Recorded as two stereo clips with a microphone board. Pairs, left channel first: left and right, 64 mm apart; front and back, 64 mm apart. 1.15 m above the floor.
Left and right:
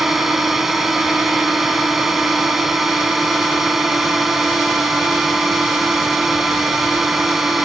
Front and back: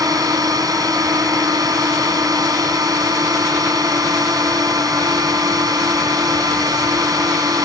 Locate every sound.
0.0 s a drone: 175° right